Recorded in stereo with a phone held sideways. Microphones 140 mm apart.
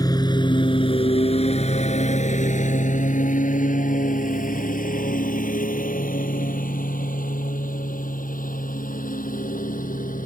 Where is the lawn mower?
30° left (ahead or behind); by 10.3 s 80° left.